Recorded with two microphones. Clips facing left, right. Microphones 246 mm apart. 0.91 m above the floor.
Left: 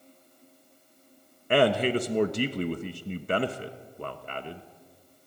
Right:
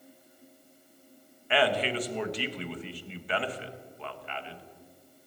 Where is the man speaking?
50° left (ahead or behind), 0.9 m.